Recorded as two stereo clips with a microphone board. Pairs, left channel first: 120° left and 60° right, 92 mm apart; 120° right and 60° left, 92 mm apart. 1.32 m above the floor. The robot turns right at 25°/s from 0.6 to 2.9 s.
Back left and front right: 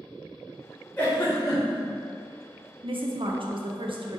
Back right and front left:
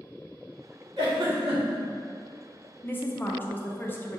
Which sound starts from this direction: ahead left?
A giggle, at 1.0 s.